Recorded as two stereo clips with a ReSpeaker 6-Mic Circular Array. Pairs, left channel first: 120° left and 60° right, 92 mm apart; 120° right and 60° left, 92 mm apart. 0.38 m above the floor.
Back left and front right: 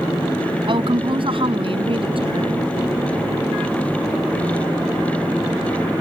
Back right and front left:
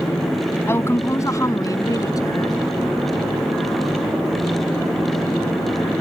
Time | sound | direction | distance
0.7 | a woman speaking | 60° right | ?